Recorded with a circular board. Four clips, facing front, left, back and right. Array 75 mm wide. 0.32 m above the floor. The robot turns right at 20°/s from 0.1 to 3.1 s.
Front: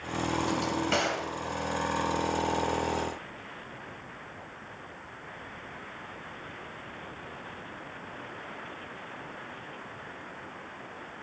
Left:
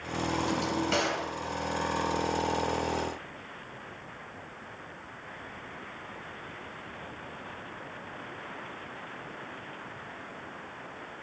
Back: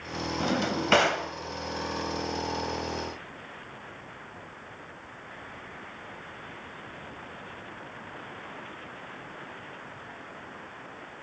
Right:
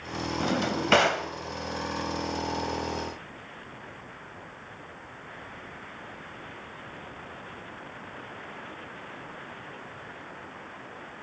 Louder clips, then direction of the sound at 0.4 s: Right 5 dB, back 5 dB; 135° right.